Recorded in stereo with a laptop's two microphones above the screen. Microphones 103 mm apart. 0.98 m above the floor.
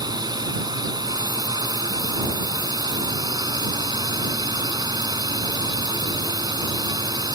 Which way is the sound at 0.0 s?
40° right (ahead or behind).